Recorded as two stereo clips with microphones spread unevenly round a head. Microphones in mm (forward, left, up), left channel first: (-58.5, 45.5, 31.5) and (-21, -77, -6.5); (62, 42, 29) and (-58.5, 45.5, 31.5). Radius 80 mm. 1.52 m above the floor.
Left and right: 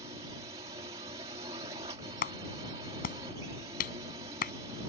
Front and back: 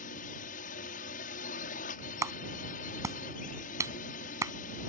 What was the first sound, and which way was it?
A drone, 10° right.